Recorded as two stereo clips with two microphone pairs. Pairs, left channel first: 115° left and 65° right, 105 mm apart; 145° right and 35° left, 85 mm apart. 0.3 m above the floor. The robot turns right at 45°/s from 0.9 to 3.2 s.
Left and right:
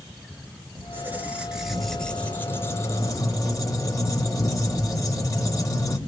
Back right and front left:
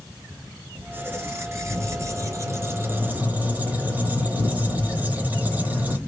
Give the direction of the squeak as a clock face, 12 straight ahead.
12 o'clock.